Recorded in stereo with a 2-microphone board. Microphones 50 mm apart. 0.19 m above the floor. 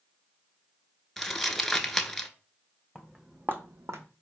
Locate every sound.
1.2 s crumpling: 5° left (ahead or behind), 0.5 m
3.0 s footsteps: 5° right (ahead or behind), 0.9 m; by 4.0 s 80° right, 0.8 m